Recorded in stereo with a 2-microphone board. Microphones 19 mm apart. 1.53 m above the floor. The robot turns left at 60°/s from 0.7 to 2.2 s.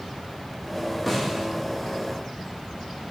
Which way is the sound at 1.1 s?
5° left (ahead or behind).